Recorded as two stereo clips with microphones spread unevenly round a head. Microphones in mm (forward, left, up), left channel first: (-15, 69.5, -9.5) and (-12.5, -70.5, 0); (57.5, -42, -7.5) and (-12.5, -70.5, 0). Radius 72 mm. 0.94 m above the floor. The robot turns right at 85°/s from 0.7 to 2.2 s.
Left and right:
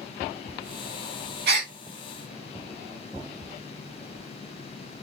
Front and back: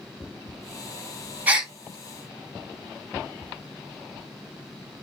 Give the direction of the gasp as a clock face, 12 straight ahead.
3 o'clock.